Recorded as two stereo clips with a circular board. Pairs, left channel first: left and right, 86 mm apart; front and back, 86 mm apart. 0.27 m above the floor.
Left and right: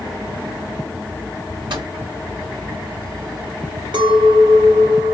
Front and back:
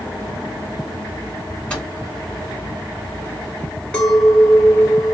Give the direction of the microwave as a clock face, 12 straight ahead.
3 o'clock.